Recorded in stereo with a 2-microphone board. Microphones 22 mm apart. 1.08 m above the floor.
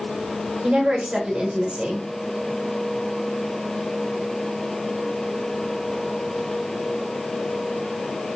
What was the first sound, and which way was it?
A woman speaking, 55° right (ahead or behind).